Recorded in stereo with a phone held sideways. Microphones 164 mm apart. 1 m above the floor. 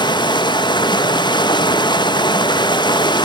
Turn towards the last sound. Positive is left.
turn(degrees=25)  # may be behind; listen again after turning